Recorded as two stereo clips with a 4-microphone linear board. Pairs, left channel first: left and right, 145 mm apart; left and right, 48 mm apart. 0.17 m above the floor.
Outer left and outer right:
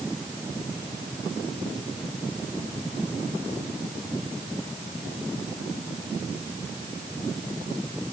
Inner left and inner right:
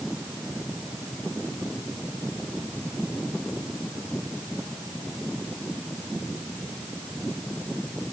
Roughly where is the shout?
No shout in this recording.